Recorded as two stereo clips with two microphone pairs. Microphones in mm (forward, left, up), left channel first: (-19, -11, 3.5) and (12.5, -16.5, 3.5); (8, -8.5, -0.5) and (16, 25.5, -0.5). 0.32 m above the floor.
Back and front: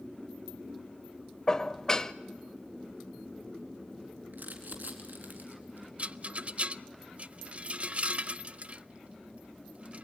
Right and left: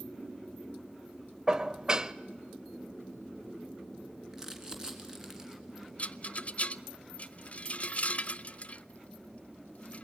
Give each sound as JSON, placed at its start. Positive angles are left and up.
{"t": 1.5, "sound": "dishes clattering", "azimuth_deg": 125, "distance_m": 0.7}
{"t": 4.3, "sound": "crumpling", "azimuth_deg": 0, "distance_m": 3.5}
{"t": 6.0, "sound": "a rattle", "azimuth_deg": -55, "distance_m": 0.5}